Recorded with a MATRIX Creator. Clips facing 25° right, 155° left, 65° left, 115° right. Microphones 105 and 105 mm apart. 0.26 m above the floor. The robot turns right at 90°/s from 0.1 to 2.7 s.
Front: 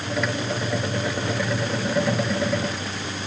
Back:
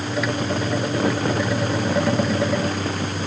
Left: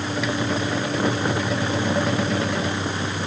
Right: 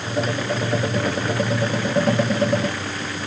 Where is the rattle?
I don't hear a rattle.